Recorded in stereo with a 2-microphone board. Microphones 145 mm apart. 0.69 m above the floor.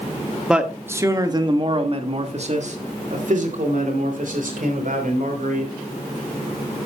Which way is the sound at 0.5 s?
5° right (ahead or behind).